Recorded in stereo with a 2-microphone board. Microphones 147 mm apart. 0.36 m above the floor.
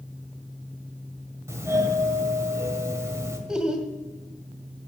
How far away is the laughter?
About 1.7 m.